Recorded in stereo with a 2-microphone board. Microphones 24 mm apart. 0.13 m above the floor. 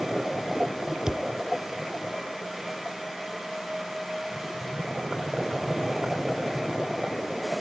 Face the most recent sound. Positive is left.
turn(degrees=-25)  # may be behind; listen again after turning